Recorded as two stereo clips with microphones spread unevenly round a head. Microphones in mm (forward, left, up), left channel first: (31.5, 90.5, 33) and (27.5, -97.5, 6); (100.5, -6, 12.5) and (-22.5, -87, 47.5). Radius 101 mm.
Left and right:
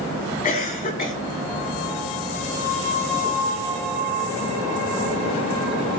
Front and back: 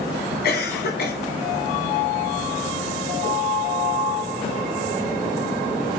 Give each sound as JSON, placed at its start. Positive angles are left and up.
{"t": 0.4, "sound": "a cough", "azimuth_deg": 40, "distance_m": 3.5}